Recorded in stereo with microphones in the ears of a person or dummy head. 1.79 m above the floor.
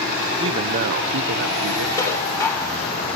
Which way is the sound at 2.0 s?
20° left (ahead or behind).